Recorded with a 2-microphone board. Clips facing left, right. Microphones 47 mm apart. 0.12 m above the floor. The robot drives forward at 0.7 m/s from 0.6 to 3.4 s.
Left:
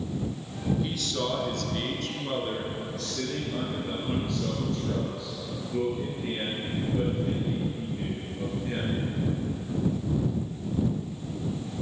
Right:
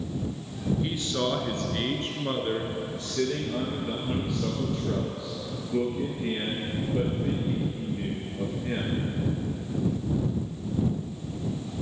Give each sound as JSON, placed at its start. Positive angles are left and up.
{"t": 0.8, "sound": "a man speaking", "side_deg": -25, "distance_m": 1.4}